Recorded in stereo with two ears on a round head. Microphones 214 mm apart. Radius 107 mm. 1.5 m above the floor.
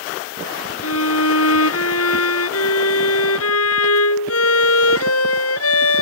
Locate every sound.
0.8 s a violin: 70° left (ahead or behind)